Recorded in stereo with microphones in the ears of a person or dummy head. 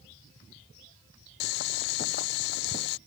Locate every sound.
1.4 s boiling: 60° left (ahead or behind)